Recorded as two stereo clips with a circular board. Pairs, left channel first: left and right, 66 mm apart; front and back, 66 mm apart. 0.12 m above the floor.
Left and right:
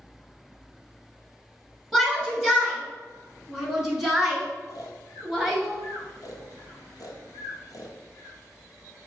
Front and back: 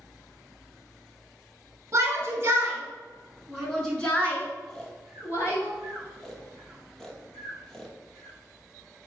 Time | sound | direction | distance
1.9 | a shout | straight behind | 1.3 m
4.7 | snoring | 85° left | 0.7 m